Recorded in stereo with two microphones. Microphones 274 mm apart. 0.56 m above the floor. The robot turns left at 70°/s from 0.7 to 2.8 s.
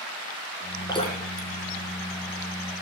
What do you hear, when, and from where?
0.9 s dripping: 15° left (ahead or behind), 2.0 m; by 1.5 s 55° left (ahead or behind), 2.0 m